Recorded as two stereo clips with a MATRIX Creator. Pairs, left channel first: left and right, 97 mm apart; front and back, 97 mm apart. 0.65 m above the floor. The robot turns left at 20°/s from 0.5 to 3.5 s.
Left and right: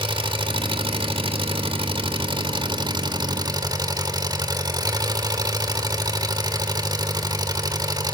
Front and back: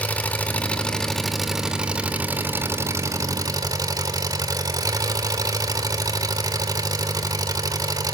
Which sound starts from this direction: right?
An engine running, at 0.0 s.